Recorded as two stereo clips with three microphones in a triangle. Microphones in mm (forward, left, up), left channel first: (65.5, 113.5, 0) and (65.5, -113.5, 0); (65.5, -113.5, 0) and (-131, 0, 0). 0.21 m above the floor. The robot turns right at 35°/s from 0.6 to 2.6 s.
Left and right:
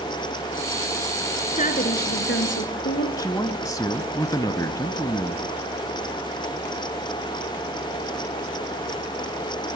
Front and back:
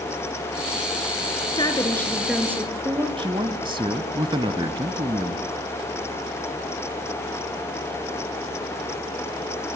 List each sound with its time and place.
1.6 s a woman speaking: 35° left, 3 m; by 3.1 s 75° left, 3 m
3.2 s a man speaking: 135° left, 1.0 m